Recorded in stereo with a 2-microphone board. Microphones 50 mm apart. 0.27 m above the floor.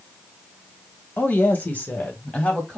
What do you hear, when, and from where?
1.2 s a woman speaking: 40° left (ahead or behind), 1.3 m; by 2.8 s 25° left (ahead or behind), 1.5 m